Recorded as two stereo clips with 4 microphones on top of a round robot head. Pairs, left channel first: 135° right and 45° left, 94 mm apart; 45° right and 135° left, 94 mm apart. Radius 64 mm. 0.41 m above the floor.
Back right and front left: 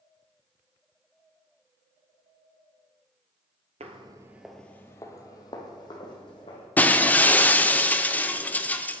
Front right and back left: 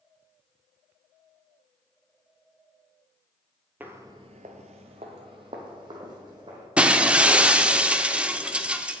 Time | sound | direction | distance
3.8 | footsteps | 60° left | 0.6 m
6.8 | breaking glass | 170° right | 0.6 m